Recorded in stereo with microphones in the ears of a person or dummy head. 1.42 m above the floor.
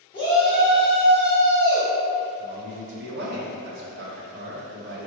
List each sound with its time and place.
0.1 s a shout: 20° left (ahead or behind), 0.8 m
2.4 s a man speaking: 55° right (ahead or behind), 0.9 m